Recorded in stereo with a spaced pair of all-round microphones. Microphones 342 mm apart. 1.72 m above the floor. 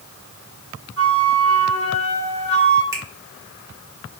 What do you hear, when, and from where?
1.0 s a flute: 40° left (ahead or behind), 2 m
2.9 s a finger snap: 10° right (ahead or behind), 1.3 m